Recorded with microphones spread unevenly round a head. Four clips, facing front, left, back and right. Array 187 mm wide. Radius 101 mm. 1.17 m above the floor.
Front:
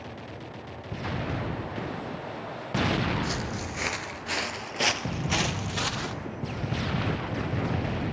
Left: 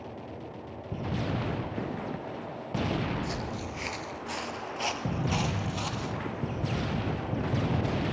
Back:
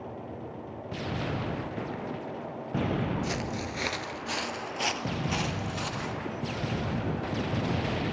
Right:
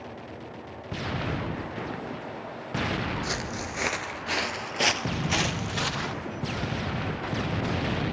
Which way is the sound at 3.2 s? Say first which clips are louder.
Right 2 dB, even; 145° right.